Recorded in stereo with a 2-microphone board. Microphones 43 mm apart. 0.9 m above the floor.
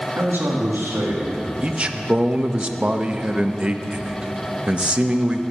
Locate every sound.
0.2 s a man speaking: 60° right (ahead or behind), 1.9 m; by 1.5 s 65° right (ahead or behind), 2.5 m
1.6 s a man speaking: 25° right (ahead or behind), 0.6 m